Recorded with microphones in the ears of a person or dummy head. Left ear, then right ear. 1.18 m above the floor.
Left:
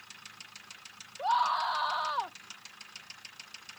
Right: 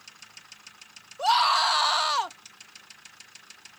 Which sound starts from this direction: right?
A scream, at 1.2 s.